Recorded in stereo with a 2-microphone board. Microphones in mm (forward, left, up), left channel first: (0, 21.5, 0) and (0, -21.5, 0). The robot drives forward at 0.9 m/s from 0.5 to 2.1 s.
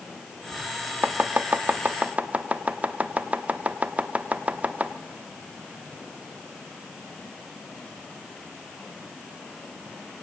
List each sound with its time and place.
1.0 s chopping: 40° right (ahead or behind), 0.9 m; by 4.9 s 30° right (ahead or behind), 1.1 m